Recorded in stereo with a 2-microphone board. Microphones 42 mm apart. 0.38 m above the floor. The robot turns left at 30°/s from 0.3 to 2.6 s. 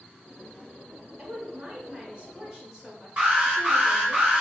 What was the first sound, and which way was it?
A woman speaking, 120° right.